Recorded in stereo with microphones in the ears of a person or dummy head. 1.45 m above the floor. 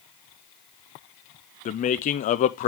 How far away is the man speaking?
About 0.5 m.